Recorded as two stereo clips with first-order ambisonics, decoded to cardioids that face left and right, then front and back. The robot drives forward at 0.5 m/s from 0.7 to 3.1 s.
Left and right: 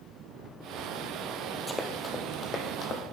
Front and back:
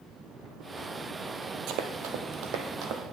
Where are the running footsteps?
Straight behind, 0.9 m; by 3.1 s 145° left, 1.5 m.